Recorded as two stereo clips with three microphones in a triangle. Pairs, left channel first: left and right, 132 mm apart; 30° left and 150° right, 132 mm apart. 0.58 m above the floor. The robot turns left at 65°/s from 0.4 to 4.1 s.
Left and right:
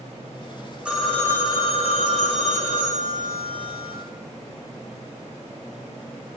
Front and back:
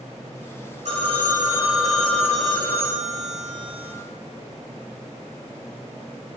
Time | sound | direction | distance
0.8 | a phone ringing | 170° right | 2 m